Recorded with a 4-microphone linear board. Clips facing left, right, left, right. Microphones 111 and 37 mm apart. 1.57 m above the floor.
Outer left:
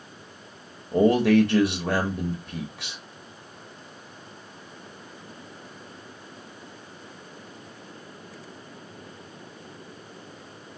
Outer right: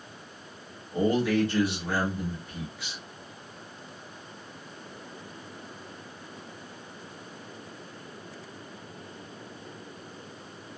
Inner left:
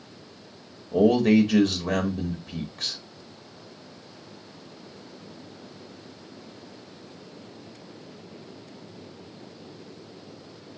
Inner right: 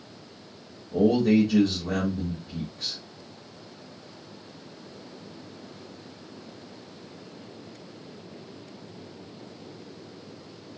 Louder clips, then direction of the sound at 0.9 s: Outer left 6 dB, inner left 2 dB; 65° left (ahead or behind).